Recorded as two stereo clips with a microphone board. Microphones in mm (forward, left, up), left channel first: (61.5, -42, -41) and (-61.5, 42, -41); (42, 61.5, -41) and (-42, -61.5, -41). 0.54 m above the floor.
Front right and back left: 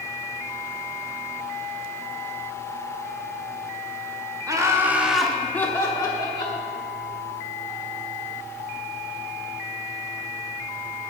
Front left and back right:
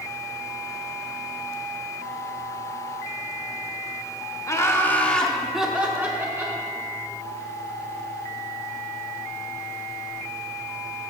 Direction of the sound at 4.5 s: 105° left.